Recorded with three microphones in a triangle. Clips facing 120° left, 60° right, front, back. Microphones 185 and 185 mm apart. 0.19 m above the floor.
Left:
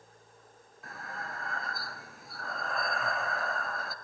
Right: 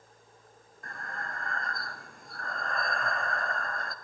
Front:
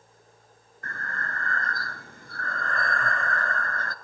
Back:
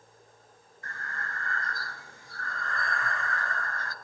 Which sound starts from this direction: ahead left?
Breathing, at 0.8 s.